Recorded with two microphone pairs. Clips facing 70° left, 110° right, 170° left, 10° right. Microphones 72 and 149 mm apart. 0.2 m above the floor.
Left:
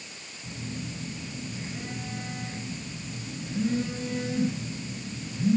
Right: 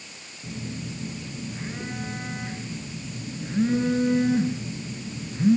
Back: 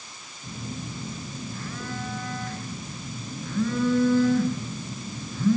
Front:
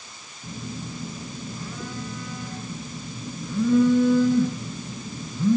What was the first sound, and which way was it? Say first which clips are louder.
A phone buzzing: right 3 dB, front 1 dB; 80° right.